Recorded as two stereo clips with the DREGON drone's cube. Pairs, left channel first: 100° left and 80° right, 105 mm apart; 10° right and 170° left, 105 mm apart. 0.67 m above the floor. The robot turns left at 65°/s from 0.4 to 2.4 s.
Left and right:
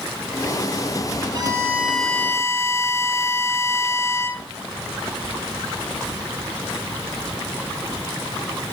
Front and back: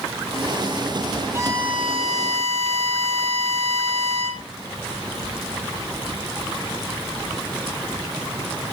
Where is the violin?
125° right, 3 m; by 4.4 s 165° left, 3 m.